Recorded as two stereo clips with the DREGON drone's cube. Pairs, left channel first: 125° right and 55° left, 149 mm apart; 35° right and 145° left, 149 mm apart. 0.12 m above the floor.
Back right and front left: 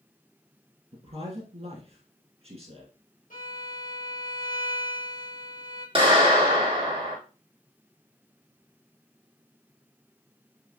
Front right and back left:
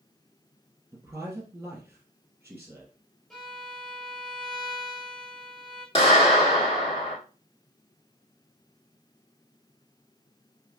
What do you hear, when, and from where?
0.9 s a man speaking: 75° left, 2 m
3.3 s a violin: 120° right, 2.5 m
6.0 s a clap: 10° left, 2.5 m